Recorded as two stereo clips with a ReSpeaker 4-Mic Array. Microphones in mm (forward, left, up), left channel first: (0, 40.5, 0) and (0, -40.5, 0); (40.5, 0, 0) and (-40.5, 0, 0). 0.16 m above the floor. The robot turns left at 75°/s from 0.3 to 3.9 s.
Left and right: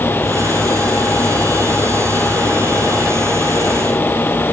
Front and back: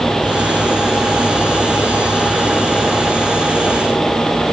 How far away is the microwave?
No microwave in this recording.